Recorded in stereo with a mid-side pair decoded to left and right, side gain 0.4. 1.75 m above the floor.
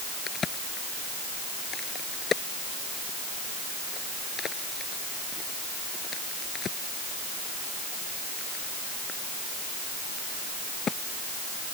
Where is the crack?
50° left.